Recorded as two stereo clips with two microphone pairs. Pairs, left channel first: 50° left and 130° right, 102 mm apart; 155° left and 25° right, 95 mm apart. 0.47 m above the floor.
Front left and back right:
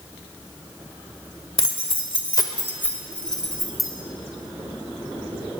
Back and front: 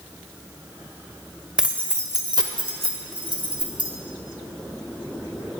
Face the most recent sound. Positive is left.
turn(degrees=-45)